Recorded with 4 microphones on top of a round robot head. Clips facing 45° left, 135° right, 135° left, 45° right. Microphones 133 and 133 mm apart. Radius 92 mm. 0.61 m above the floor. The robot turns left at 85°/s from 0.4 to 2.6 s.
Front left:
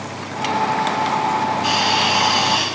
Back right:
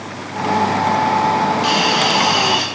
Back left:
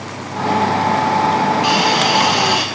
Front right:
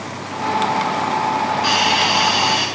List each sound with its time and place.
1.6 s a hiss: 150° right, 2.5 m; by 2.6 s 130° left, 2.5 m